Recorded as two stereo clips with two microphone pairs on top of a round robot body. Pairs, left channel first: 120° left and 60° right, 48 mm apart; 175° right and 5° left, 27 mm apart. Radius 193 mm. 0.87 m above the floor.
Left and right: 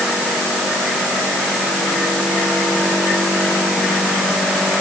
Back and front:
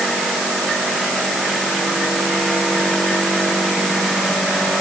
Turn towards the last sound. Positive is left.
No sound to turn to.